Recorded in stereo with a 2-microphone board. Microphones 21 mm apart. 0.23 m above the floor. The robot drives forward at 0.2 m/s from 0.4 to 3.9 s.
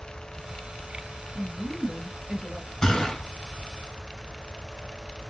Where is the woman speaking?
30° right (ahead or behind), 1.6 m.